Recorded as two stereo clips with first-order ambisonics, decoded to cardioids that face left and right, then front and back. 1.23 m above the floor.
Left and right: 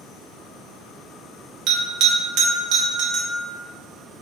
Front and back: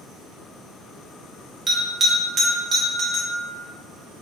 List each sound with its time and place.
1.7 s a bell: 115° right, 0.9 m